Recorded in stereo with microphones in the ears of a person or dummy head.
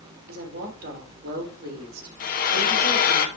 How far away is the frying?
About 1.5 m.